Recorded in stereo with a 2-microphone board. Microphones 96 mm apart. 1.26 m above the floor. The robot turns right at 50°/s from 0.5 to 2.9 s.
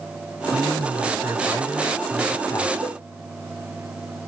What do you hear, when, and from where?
0.5 s a man speaking: 75° right, 4.5 m; by 2.7 s 35° left, 4.5 m
2.8 s a cowbell: 85° right, 1.9 m; by 3.0 s 80° right, 1.9 m